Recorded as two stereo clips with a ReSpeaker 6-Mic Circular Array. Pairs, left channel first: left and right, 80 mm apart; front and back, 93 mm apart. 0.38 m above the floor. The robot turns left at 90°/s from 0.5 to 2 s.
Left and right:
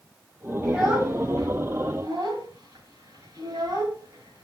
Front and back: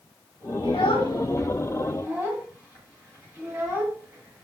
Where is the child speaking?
Straight ahead, 1.6 m; by 4.4 s 125° right, 1.6 m.